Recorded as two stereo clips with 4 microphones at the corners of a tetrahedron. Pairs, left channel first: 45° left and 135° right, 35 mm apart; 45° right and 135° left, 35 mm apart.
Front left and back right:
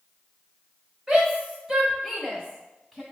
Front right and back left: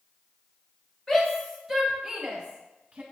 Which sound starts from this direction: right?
A shout, at 1.1 s.